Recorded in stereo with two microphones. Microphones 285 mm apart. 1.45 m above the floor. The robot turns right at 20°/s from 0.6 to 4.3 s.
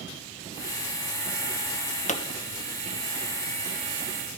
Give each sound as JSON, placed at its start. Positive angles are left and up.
{"t": 2.1, "sound": "a pop", "side_deg": 25, "distance_m": 0.8}